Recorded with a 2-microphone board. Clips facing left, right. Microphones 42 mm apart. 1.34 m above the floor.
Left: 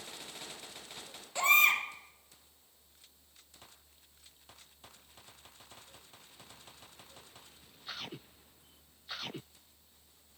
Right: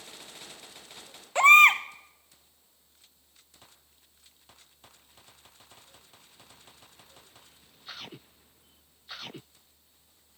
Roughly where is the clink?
I don't hear a clink.